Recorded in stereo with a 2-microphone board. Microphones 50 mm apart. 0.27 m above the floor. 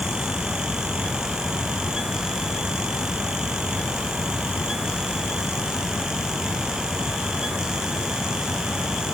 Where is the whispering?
I don't hear whispering.